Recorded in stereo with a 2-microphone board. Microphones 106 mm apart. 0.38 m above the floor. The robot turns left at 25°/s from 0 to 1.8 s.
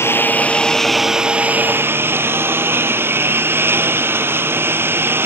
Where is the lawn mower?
25° left; by 5.3 s 20° right.